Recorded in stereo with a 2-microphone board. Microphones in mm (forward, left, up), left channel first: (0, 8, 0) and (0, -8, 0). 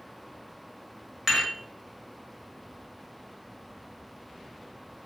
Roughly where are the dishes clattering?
Right.